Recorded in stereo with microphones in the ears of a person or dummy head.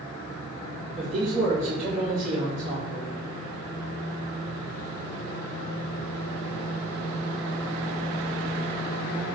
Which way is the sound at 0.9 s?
15° right (ahead or behind).